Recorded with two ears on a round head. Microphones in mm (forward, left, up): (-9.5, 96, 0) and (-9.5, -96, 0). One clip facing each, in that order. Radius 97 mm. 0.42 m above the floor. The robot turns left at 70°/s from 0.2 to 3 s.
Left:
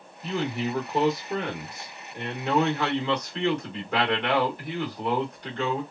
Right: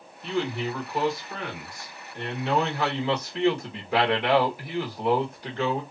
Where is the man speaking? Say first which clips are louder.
Even; centre (ahead or behind), 1.1 m; by 5.8 s 5° right (ahead or behind), 1.1 m.